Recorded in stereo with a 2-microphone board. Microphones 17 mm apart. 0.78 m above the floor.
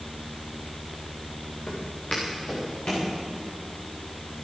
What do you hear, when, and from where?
1.7 s footsteps: 65° left (ahead or behind), 5 m; by 3.1 s 70° left (ahead or behind), 6.5 m